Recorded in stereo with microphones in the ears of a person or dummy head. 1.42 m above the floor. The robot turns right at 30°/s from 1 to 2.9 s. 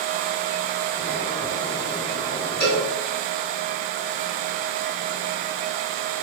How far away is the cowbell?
About 1.8 m.